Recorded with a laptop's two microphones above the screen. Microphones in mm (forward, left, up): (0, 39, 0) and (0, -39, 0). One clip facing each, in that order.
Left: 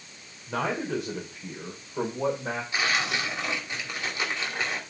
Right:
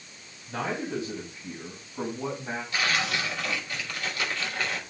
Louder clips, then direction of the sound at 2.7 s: Even; 20° left (ahead or behind).